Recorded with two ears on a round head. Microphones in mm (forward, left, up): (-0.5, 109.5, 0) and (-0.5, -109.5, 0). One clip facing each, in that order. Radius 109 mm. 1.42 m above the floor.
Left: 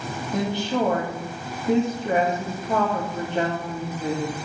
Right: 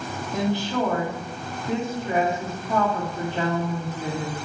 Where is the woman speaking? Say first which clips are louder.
Even; 20° left (ahead or behind), 2 m.